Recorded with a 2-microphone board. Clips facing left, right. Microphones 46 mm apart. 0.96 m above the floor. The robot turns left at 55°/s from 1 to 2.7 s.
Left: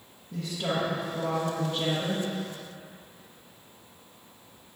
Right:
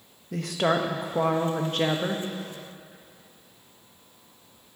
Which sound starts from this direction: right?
A woman speaking, at 0.3 s.